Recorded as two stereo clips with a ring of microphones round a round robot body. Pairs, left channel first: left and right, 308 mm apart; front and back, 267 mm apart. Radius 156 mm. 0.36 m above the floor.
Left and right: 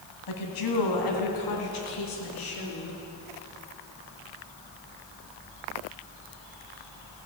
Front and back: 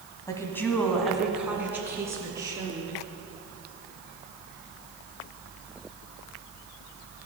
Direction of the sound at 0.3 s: 75° left.